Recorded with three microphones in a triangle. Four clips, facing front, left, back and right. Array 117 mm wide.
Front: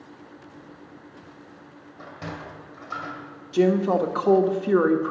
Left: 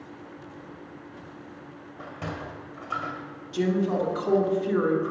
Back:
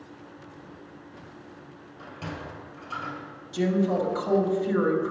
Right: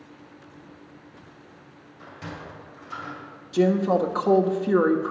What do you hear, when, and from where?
2.0 s a sliding door: 70° left, 2 m
3.5 s a woman speaking: 40° right, 1.4 m